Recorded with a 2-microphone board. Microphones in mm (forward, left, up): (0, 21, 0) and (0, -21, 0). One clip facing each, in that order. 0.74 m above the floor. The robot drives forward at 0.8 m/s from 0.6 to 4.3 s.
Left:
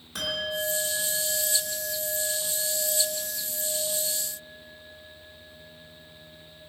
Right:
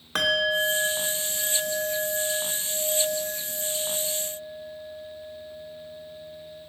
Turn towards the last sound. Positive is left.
turn(degrees=-25)  # may be behind; listen again after turning